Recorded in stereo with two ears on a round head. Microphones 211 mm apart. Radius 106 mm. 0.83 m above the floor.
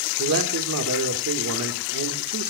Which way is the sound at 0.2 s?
70° right (ahead or behind).